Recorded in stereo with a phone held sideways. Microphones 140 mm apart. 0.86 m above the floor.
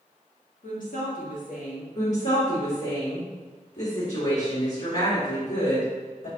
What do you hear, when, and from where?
0.6 s a woman speaking: 75° left (ahead or behind), 1.3 m
1.9 s a woman speaking: 55° left (ahead or behind), 2.0 m